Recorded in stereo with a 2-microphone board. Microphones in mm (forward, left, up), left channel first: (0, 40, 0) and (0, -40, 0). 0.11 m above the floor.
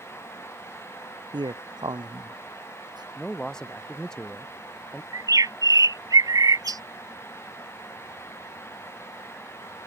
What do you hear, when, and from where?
1.3 s a man speaking: 75° right (ahead or behind); by 3.0 s 65° right (ahead or behind)
3.1 s a man speaking: 10° left (ahead or behind)
5.1 s a bird: 55° right (ahead or behind)